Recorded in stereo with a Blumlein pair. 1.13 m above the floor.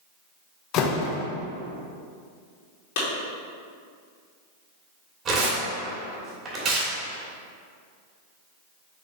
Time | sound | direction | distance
0.7 | a door slam | 35° left | 0.9 m
3.0 | a clap | 50° left | 2.5 m
5.2 | tearing paper | 30° right | 2.5 m